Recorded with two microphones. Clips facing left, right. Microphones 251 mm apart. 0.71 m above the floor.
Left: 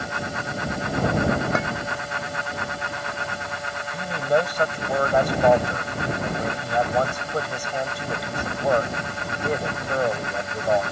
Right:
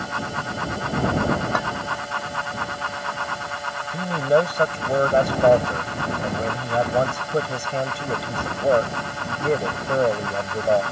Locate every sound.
1.6 s a clink: 25° left (ahead or behind)
3.9 s a man speaking: 30° right (ahead or behind)